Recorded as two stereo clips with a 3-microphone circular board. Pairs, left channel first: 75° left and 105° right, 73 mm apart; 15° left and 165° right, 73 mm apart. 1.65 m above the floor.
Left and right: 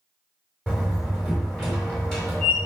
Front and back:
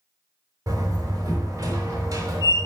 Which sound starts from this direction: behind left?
A door slam, at 0.7 s.